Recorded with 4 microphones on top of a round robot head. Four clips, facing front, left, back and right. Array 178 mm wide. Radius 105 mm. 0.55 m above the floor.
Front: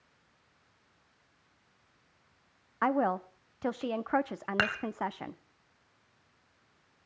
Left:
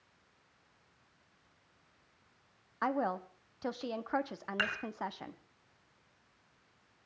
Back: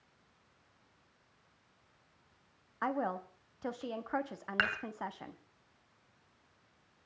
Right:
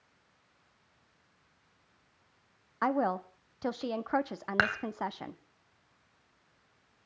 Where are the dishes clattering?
55° right, 2 m.